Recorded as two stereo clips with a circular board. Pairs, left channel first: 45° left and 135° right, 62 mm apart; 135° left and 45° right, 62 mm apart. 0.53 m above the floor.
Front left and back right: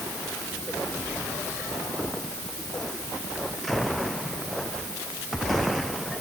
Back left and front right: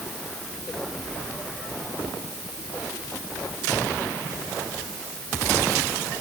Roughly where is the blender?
I don't hear a blender.